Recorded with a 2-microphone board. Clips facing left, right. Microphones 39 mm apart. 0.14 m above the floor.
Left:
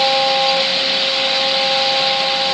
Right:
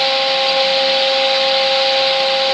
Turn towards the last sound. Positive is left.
No sound to turn to.